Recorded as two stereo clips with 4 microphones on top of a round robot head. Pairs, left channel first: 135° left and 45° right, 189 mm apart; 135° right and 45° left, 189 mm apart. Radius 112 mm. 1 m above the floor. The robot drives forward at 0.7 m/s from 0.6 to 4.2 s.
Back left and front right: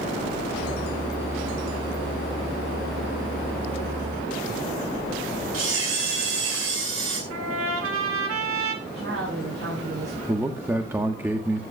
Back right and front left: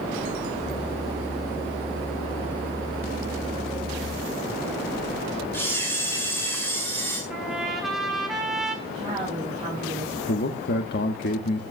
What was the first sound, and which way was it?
A camera shutter, 60° right.